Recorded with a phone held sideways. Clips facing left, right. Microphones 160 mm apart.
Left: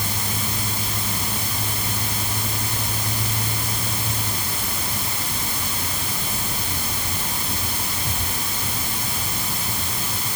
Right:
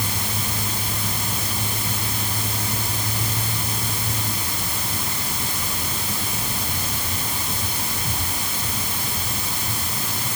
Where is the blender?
No blender in this recording.